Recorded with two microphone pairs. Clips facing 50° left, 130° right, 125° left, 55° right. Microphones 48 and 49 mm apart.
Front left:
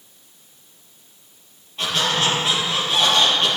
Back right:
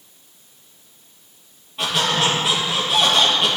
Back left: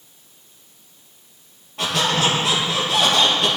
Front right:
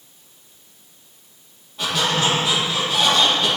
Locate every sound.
1.8 s a squeak: 145° left, 3 m